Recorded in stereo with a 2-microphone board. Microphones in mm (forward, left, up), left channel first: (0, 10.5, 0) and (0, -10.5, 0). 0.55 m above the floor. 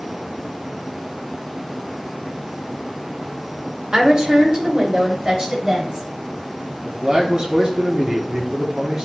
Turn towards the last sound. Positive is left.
turn(degrees=-40)  # may be behind; listen again after turning